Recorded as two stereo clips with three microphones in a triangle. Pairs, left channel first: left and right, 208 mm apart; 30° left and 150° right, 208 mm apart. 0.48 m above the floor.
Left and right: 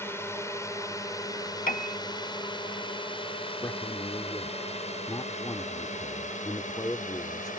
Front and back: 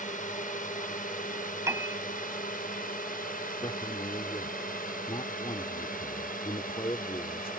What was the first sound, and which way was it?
A drone, 20° left.